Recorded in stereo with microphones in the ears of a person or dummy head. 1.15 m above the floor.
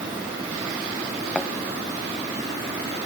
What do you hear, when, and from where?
1.4 s a thud: 5° left (ahead or behind)